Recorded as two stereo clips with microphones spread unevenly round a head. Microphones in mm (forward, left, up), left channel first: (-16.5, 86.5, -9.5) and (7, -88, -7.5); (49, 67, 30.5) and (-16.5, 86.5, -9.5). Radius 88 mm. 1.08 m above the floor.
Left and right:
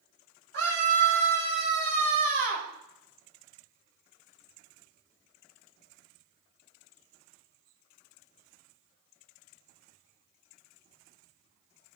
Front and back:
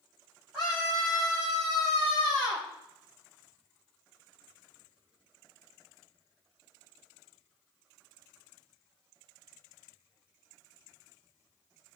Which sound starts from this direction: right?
A scream, at 0.5 s.